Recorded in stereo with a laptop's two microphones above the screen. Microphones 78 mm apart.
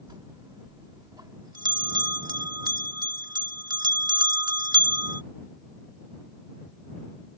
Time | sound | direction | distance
0.1 | a bell | 60° right (ahead or behind) | ?